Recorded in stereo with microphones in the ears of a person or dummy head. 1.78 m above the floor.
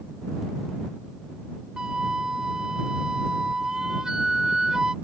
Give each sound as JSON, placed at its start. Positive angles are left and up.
{"t": 1.8, "sound": "a flute", "side_deg": -5}